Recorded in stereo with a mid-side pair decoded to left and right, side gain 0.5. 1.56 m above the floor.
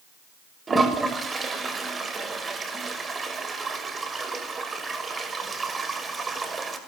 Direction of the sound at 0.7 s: 30° right.